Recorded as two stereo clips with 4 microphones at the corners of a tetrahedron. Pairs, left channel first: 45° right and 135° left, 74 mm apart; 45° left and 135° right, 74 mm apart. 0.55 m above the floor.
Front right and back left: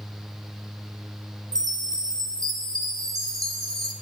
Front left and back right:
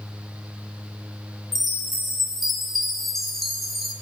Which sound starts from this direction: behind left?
A chime, at 1.5 s.